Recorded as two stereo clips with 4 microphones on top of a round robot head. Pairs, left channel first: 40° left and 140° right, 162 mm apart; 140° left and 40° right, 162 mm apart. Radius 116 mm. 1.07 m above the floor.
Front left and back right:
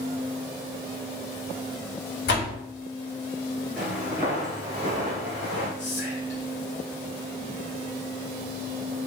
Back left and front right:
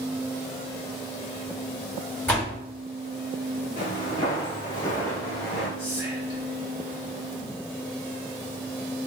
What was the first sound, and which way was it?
A door slam, 60° left.